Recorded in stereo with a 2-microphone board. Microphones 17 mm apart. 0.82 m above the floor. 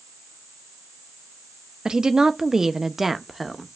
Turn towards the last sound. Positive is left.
turn(degrees=5)  # may be behind; listen again after turning